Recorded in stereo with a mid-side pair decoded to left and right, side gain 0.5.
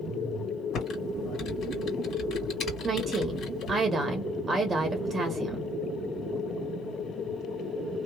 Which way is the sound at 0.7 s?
55° left.